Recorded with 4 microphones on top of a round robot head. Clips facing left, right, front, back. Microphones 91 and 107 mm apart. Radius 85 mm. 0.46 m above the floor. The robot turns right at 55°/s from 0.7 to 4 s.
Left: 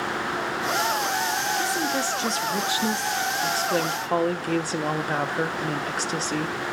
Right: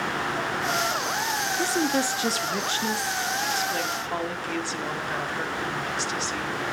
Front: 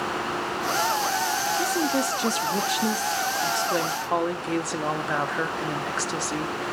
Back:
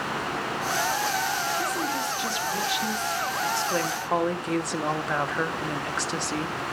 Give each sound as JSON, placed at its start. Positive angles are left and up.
{"t": 1.6, "sound": "a woman speaking", "azimuth_deg": -45, "distance_m": 0.9}